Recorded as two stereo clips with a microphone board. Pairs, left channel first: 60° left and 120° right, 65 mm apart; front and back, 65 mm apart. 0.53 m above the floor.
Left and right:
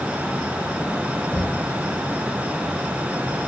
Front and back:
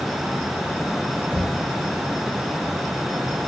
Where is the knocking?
110° left, 5 m.